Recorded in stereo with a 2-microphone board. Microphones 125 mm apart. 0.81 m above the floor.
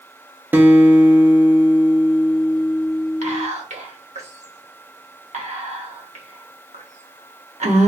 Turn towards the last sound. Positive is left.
turn(degrees=-65)  # may be behind; listen again after turning